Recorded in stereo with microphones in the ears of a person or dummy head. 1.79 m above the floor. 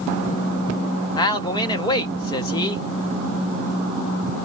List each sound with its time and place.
1.1 s a man speaking: 25° left (ahead or behind), 0.7 m